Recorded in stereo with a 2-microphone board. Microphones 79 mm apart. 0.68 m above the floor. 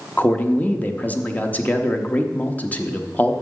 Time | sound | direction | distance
0.2 | a man speaking | 20° left (ahead or behind) | 0.8 m